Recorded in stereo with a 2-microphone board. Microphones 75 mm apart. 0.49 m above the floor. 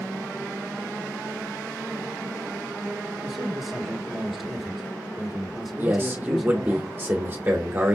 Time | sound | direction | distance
3.2 | a man speaking | centre (ahead or behind) | 1.6 m
5.8 | a man speaking | 30° right (ahead or behind) | 1.1 m